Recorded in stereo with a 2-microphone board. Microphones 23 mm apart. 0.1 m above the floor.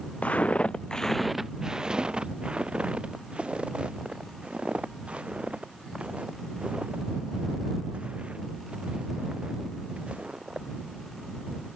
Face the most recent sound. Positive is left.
turn(degrees=-70)  # may be behind; listen again after turning